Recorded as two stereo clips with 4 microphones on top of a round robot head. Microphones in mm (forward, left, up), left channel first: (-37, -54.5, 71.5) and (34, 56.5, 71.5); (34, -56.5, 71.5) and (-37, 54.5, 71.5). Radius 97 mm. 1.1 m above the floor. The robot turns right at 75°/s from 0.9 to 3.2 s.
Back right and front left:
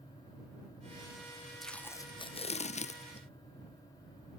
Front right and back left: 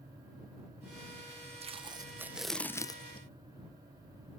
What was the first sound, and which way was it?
Tape being pulled, 150° left.